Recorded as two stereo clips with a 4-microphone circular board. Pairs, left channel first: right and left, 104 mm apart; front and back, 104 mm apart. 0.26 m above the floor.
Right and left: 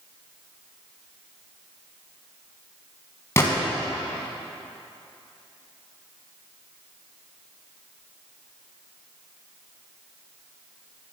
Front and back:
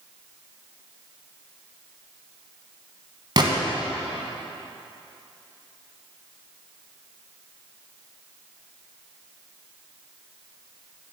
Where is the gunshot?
150° right, 1.5 m.